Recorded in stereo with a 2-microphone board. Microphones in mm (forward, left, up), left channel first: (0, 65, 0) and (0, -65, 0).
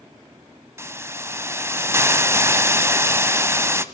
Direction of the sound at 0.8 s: 20° right (ahead or behind).